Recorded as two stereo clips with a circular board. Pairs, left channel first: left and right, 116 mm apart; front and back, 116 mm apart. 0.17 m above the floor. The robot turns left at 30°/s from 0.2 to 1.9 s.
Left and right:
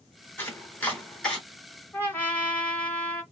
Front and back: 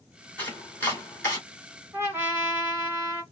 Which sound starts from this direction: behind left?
A trumpet, at 1.9 s.